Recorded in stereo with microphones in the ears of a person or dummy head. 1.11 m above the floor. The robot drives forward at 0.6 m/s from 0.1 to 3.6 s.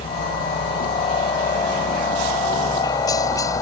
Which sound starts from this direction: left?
A helicopter, at 0.0 s.